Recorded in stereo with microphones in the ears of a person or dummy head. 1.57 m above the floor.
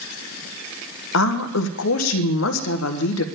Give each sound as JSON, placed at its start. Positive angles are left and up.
{"t": 1.1, "sound": "a woman speaking", "side_deg": 65, "distance_m": 1.2}